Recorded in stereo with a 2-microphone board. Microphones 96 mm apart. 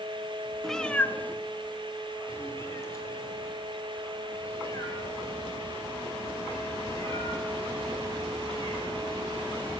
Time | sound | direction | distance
0.6 | a cat meowing | centre (ahead or behind) | 0.5 m